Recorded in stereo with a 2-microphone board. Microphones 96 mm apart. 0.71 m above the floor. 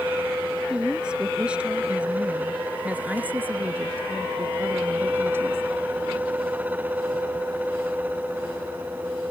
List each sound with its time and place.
0.7 s a woman speaking: 10° right (ahead or behind); by 5.6 s 25° right (ahead or behind)